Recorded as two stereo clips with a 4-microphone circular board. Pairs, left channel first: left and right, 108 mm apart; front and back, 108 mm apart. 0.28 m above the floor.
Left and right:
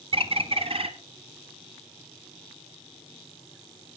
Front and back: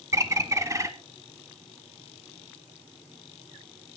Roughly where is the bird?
Behind right.